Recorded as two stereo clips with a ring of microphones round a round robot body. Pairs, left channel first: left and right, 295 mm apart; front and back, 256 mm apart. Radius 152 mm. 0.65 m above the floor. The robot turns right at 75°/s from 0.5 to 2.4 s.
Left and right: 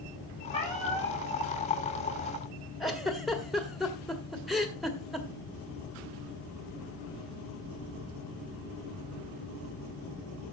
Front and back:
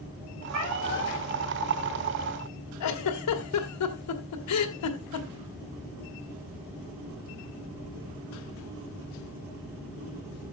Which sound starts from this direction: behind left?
A cat meowing, at 0.5 s.